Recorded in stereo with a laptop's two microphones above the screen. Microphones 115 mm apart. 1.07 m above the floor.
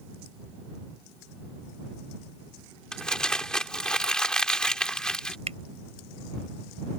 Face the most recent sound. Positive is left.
turn(degrees=-70)  # may be behind; listen again after turning